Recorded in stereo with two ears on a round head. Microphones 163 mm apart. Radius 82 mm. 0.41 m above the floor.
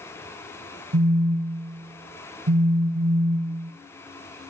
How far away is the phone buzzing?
About 1.5 m.